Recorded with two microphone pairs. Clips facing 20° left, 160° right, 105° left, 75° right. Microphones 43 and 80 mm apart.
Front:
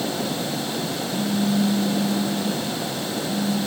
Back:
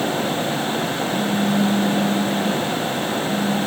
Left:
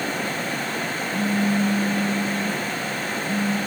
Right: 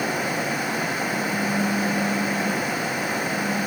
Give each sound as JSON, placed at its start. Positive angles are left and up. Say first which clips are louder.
{"t": 1.1, "sound": "a phone buzzing", "louder": "back 1 dB, left 6 dB", "azimuth_deg": 105, "distance_m": 1.9}